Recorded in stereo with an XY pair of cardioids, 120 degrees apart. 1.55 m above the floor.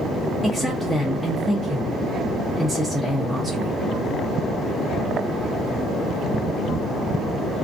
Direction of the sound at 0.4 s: 10° left.